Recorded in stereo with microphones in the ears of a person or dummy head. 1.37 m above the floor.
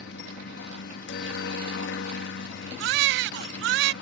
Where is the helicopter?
60° left (ahead or behind).